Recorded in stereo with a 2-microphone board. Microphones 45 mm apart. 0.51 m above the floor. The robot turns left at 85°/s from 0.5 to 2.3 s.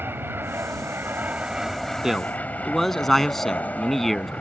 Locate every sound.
0.0 s an aircraft: 70° right; by 4.4 s 140° left
2.0 s a man speaking: 15° right (ahead or behind); by 4.3 s 5° left (ahead or behind)